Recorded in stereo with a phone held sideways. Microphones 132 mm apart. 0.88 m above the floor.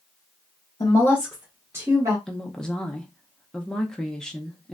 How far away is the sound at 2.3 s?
About 0.6 m.